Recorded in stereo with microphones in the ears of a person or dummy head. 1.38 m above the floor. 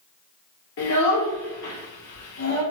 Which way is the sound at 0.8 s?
55° left (ahead or behind).